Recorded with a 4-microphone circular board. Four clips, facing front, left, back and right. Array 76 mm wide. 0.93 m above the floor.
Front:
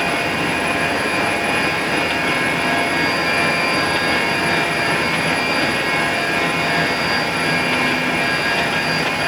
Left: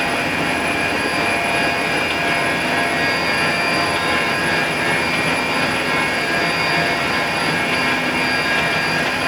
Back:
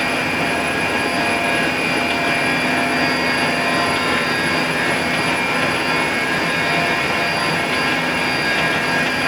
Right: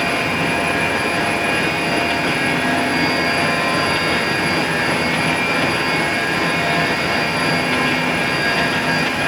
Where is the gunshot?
No gunshot in this recording.